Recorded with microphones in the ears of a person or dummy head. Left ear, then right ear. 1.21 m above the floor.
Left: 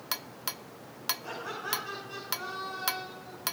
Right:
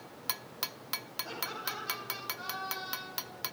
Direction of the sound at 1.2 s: 45° left (ahead or behind).